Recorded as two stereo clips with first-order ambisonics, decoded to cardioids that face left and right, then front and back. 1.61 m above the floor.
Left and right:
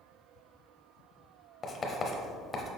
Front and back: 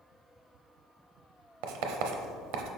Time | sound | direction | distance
1.6 | writing | 165° left | 0.7 m